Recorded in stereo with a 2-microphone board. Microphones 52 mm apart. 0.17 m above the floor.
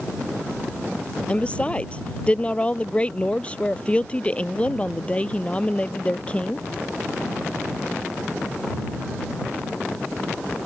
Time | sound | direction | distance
1.3 | a woman speaking | 25° left (ahead or behind) | ?